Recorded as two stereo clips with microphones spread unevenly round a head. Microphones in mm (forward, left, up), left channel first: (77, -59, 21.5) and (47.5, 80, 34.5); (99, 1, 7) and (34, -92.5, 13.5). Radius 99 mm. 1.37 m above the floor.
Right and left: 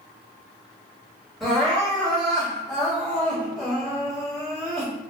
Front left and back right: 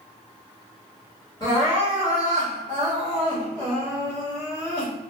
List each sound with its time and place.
1.4 s crying: 15° left, 1.3 m